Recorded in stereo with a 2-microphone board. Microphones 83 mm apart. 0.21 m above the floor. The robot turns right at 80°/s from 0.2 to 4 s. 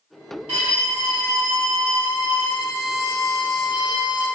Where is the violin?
160° right, 1.4 m; by 4.3 s 125° left, 1.4 m.